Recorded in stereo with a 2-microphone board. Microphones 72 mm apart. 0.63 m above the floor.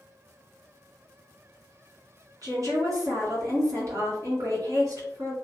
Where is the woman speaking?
50° right (ahead or behind), 1.7 m.